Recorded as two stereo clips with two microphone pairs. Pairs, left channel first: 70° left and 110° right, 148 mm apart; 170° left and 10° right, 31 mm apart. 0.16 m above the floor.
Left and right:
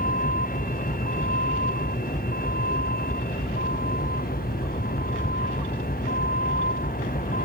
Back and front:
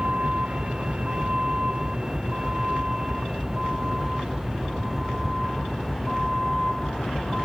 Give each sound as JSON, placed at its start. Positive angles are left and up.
{"t": 0.0, "sound": "a vehicle", "azimuth_deg": 55}